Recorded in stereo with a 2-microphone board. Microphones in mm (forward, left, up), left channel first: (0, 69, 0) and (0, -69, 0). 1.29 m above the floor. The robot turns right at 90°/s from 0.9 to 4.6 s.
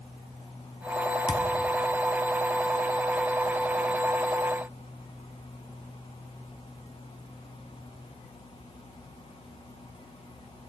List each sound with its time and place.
1.3 s a thud: 30° left (ahead or behind), 0.7 m; by 1.5 s 25° left (ahead or behind), 0.7 m